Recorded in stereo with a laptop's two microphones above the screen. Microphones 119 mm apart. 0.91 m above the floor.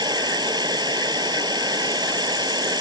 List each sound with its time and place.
0.0 s running water: 35° right (ahead or behind)